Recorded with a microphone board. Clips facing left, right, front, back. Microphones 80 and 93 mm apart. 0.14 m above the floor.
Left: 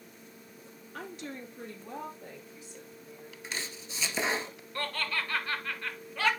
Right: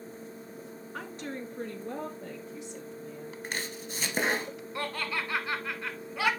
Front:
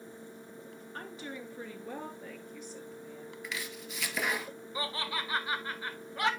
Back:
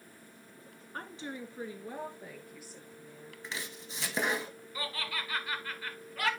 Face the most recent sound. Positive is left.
turn(degrees=-30)